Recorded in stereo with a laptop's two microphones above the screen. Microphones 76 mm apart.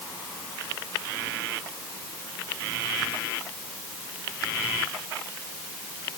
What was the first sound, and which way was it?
Only background noise.